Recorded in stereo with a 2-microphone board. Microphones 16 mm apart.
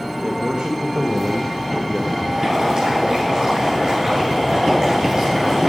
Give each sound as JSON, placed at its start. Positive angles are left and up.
{"t": 0.2, "sound": "a man speaking", "side_deg": -70, "distance_m": 1.8}
{"t": 2.3, "sound": "boiling", "side_deg": -50, "distance_m": 8.5}